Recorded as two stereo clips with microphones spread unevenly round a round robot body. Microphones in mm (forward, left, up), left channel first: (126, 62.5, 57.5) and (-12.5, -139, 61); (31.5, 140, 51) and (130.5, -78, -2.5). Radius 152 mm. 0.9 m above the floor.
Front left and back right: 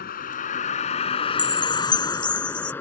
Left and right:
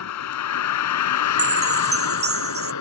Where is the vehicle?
115° left; by 2.8 s 140° left.